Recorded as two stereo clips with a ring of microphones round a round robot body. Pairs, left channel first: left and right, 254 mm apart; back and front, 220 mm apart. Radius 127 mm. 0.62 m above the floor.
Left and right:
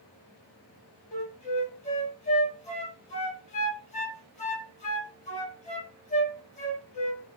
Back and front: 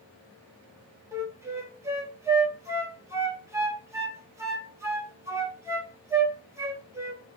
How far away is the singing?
I don't hear singing.